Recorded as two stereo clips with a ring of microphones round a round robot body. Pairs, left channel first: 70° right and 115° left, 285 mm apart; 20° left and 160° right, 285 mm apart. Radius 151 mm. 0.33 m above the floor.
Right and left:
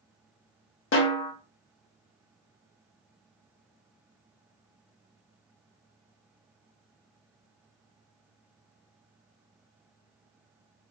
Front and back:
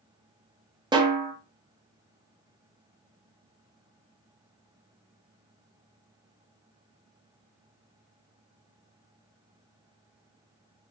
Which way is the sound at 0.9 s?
90° right.